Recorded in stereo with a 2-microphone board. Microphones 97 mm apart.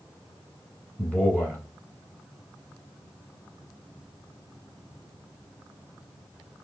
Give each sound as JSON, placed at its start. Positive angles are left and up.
{"t": 1.0, "sound": "a man speaking", "side_deg": 15, "distance_m": 1.4}